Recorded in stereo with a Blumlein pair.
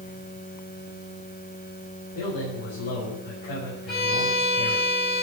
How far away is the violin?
About 7 m.